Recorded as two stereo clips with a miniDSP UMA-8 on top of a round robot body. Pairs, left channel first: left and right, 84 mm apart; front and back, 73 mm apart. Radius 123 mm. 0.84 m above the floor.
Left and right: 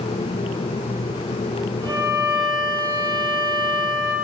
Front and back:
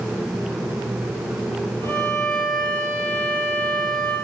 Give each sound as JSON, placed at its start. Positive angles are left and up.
{"t": 1.8, "sound": "a violin", "azimuth_deg": -50, "distance_m": 5.0}